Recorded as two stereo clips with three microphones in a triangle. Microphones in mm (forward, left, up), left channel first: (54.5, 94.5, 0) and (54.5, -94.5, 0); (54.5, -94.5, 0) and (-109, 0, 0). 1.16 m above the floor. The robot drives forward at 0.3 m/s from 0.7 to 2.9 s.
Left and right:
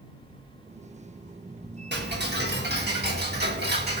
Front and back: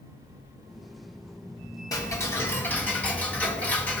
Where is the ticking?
100° right, 1.6 m; by 4.0 s 110° right, 1.7 m.